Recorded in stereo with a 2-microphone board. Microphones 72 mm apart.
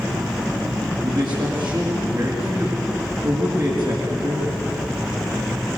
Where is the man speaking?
70° right (ahead or behind), 4.5 m.